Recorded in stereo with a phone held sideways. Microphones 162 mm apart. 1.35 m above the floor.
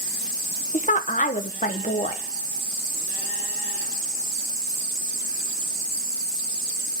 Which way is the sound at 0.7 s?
55° left (ahead or behind).